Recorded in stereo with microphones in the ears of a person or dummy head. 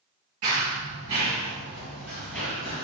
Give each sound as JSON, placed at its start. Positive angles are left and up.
{"t": 0.4, "sound": "running footsteps", "side_deg": -40, "distance_m": 1.8}